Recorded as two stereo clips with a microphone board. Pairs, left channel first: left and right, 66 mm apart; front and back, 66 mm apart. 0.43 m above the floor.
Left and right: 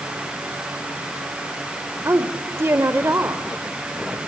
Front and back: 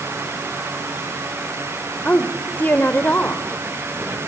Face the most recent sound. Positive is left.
turn(degrees=-55)